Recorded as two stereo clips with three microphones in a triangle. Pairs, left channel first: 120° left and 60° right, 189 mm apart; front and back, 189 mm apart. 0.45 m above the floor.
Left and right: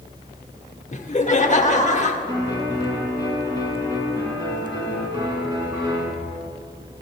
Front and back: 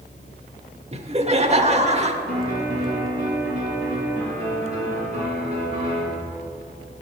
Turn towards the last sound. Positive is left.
turn(degrees=-125)